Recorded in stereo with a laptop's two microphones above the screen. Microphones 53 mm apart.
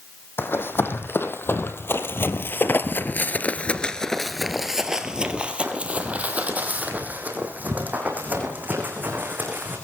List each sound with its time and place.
0.4 s running footsteps: 45° left (ahead or behind), 3 m; by 9.8 s 35° right (ahead or behind), 5 m